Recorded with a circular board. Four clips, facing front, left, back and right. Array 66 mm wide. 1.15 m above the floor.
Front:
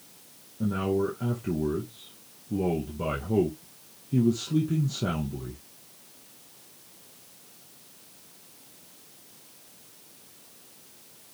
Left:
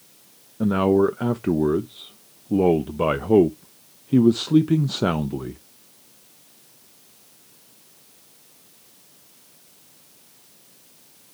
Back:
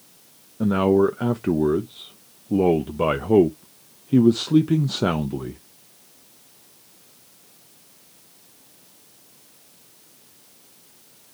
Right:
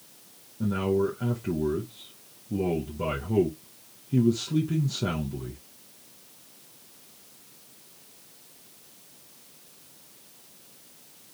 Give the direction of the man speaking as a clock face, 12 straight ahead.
8 o'clock.